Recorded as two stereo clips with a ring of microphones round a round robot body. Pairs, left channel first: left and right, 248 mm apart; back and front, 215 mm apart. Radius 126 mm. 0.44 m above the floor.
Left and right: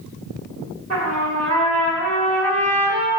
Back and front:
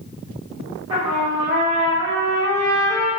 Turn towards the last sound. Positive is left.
turn(degrees=-65)